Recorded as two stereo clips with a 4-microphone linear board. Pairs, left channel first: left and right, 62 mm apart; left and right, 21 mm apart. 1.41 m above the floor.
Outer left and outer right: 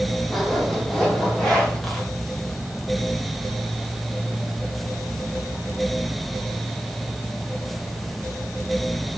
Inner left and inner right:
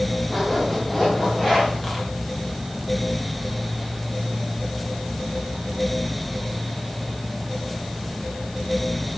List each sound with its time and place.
0.3 s a zipper: 10° left (ahead or behind), 2.5 m